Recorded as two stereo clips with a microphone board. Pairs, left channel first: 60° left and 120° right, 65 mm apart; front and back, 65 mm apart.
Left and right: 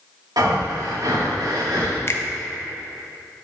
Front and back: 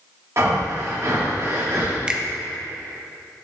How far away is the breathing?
About 1.9 m.